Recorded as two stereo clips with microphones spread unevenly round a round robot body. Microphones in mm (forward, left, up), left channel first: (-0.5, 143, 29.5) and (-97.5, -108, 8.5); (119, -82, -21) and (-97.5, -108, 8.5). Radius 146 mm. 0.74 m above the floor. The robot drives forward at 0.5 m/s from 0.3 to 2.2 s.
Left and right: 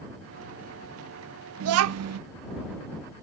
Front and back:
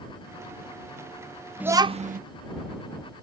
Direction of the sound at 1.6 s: 85° right.